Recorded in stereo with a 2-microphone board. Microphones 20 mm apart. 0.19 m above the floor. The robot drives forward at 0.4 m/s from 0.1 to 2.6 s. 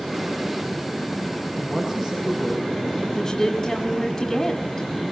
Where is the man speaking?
10° left (ahead or behind), 8 m.